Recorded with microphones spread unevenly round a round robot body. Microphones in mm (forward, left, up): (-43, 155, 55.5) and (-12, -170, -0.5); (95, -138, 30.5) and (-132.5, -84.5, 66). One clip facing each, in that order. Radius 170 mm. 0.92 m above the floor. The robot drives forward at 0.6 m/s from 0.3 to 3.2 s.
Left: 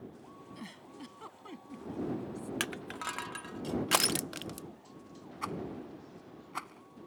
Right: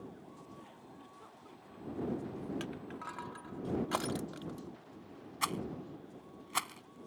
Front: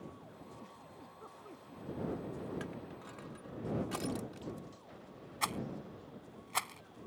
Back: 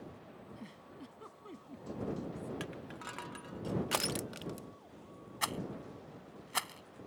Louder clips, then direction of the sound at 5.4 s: Left 1 dB, even; 115° right.